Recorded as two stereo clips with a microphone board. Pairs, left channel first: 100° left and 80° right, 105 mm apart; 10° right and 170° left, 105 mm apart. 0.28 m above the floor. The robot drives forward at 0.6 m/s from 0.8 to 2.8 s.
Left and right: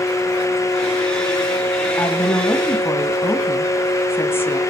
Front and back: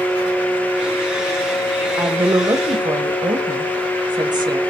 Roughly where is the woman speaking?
Behind left.